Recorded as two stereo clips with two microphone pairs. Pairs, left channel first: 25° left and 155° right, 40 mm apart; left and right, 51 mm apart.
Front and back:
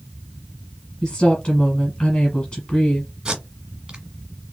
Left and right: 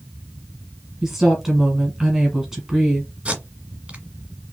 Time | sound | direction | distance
1.0 | a woman speaking | 10° right | 1.3 m
3.2 | tape being pulled | 120° right | 1.5 m